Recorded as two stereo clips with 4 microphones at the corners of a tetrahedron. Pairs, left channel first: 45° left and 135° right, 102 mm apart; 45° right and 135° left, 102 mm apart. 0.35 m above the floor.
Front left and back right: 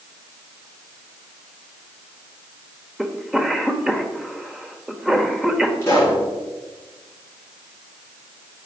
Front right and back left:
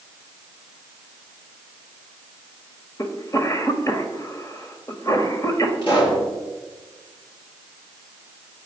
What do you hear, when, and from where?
3.0 s a cough: 55° right, 1.1 m
5.8 s a pop: 20° right, 5.5 m